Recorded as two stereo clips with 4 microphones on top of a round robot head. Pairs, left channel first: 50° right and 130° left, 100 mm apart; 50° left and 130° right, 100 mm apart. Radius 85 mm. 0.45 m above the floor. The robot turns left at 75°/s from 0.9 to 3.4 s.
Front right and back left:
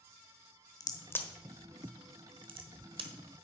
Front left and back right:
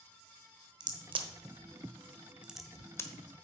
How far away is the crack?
About 1.1 m.